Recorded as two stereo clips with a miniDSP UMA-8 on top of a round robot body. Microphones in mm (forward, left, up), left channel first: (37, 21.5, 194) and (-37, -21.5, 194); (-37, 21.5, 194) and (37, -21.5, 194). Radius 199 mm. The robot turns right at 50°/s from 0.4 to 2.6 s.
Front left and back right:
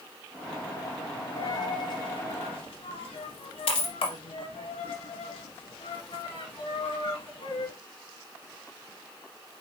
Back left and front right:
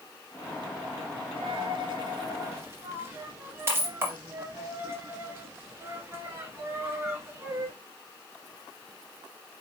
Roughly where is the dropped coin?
Ahead right.